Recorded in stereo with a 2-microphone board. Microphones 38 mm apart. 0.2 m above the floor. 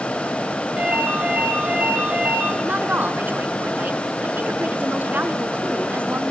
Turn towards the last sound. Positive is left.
turn(degrees=-55)  # may be behind; listen again after turning